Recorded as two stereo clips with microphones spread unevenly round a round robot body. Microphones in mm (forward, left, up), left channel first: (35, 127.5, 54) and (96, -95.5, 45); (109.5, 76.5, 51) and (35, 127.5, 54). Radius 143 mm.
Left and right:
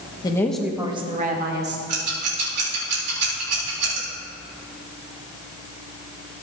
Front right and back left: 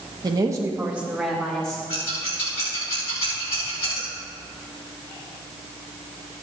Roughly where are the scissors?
Ahead right.